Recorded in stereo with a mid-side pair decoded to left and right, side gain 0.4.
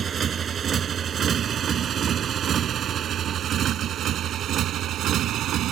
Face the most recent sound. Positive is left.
turn(degrees=-80)